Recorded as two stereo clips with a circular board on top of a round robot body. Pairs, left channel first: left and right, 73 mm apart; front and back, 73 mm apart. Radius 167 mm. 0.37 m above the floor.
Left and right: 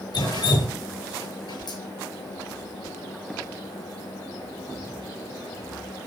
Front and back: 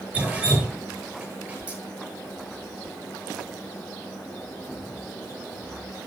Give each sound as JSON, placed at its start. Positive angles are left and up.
{"t": 0.1, "sound": "dripping", "azimuth_deg": 110, "distance_m": 8.5}